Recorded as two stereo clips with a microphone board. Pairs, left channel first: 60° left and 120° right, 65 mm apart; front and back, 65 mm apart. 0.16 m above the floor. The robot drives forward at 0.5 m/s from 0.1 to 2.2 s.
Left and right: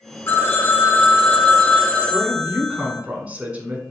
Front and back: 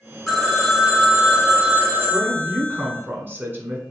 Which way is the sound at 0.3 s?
80° left.